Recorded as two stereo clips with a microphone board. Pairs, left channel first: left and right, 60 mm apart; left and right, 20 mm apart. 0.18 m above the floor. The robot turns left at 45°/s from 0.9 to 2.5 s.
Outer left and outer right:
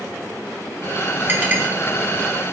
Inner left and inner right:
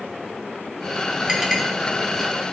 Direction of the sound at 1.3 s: 35° right (ahead or behind).